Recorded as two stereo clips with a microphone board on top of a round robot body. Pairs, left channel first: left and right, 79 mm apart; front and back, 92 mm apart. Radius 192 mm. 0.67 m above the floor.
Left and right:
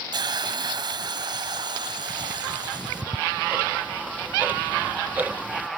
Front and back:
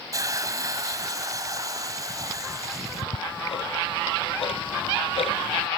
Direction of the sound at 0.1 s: 130° right.